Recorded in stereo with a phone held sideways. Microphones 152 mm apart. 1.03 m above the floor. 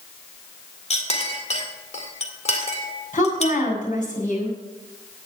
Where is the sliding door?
I don't hear a sliding door.